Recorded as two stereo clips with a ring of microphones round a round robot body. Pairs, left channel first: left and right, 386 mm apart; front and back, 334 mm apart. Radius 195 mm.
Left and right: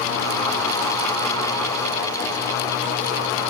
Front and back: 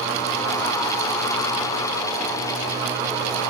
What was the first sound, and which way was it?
Only background noise.